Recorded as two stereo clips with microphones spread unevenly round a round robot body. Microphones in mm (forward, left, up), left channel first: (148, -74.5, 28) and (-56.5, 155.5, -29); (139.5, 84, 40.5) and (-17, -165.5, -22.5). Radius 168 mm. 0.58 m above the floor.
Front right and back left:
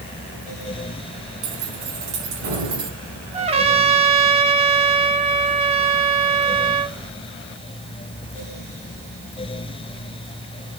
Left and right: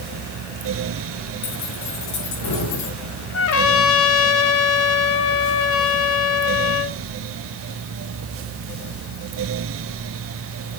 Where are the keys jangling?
105° left, 4.5 m; by 2.9 s 100° left, 6.5 m.